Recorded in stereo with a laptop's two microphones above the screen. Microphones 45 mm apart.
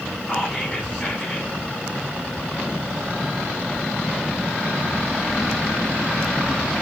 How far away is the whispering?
About 4 m.